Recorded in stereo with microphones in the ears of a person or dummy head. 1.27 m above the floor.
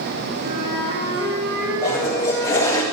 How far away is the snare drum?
No snare drum in this recording.